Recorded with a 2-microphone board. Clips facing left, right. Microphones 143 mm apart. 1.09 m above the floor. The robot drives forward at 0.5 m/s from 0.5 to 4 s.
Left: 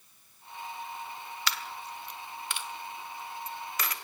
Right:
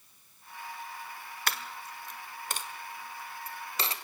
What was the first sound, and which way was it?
A dropped coin, 50° right (ahead or behind).